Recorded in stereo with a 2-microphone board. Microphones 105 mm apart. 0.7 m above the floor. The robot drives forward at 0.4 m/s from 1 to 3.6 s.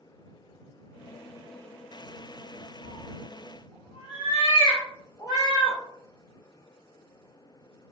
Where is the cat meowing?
65° left (ahead or behind), 0.9 m; by 5.8 s 50° left (ahead or behind), 1.0 m.